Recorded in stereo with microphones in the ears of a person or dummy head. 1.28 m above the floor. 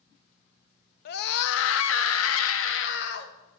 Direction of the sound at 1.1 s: 55° left (ahead or behind).